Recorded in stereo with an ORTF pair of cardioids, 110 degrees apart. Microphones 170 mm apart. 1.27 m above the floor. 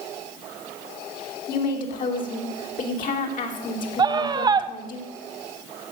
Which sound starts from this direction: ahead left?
A woman speaking, at 1.5 s.